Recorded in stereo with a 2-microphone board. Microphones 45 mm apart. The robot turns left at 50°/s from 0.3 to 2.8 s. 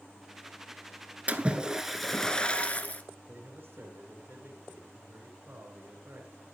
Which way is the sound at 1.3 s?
145° right.